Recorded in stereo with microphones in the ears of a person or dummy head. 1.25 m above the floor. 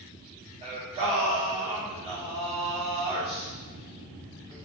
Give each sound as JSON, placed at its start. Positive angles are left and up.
{"t": 0.6, "sound": "singing", "side_deg": -20, "distance_m": 0.6}